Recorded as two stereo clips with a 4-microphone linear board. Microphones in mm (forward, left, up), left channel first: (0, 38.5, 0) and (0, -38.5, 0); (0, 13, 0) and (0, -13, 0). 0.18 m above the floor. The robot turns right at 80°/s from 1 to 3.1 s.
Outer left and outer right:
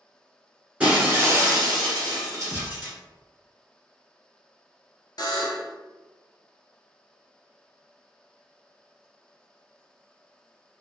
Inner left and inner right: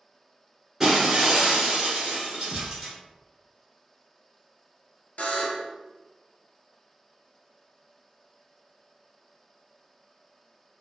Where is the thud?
10° left (ahead or behind), 0.6 m; by 2.9 s 5° right (ahead or behind), 0.6 m.